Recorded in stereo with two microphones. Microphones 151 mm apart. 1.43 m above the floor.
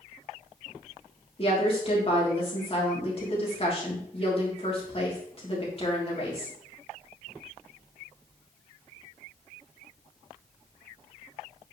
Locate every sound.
1.4 s a woman speaking: 40° left (ahead or behind), 3 m